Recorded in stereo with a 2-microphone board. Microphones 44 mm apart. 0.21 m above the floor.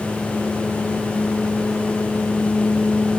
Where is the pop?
I don't hear a pop.